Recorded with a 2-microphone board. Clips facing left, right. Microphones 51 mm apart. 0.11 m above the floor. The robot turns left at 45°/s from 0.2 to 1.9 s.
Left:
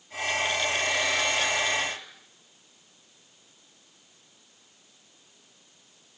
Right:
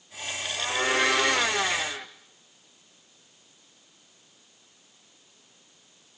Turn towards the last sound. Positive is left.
turn(degrees=-145)